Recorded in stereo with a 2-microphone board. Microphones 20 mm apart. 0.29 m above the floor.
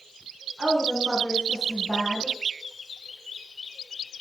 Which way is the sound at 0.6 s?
60° right (ahead or behind).